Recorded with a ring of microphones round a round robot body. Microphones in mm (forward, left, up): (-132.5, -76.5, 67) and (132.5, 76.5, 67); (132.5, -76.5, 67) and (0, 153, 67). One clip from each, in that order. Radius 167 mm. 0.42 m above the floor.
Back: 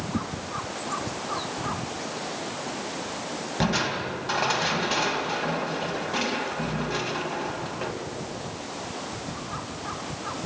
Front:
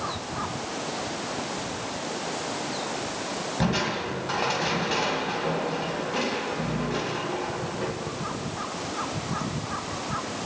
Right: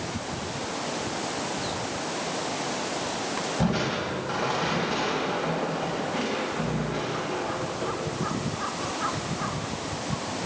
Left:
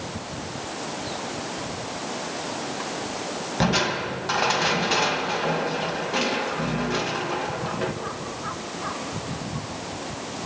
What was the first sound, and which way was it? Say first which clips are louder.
Crushing: back 2 dB, left 8 dB; 145° left.